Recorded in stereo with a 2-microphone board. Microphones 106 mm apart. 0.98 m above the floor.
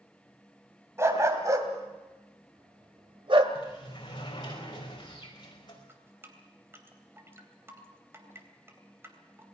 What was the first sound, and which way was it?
A dog barking, 25° right (ahead or behind).